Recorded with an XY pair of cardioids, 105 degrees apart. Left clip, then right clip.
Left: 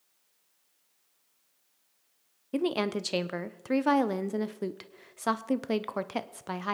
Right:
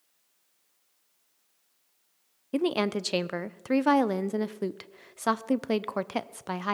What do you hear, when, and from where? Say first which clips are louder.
2.5 s a woman speaking: right 2 dB; 15° right, 0.5 m